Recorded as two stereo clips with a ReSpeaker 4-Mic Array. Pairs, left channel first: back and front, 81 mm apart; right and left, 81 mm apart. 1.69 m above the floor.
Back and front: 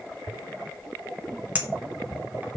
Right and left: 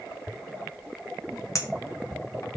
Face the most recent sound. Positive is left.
turn(degrees=-65)